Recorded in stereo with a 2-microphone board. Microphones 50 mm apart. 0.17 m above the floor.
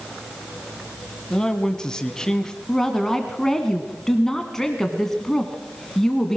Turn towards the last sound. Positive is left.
turn(degrees=10)  # may be behind; listen again after turning